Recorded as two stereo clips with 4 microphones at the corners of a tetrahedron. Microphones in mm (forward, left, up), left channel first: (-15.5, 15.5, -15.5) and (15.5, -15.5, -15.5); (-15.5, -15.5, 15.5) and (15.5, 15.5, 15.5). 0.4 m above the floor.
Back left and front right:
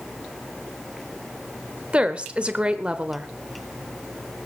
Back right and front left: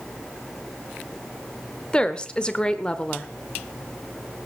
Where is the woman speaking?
85° right, 1.1 m.